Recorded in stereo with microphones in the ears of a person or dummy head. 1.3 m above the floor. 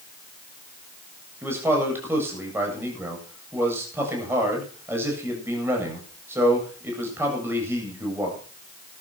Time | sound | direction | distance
1.4 | a man speaking | 20° right (ahead or behind) | 8.5 m